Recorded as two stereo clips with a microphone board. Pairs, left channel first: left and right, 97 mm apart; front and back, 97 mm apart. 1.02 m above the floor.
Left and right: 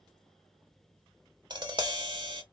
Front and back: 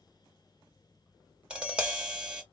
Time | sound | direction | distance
1.5 | tapping | 100° right | 1.0 m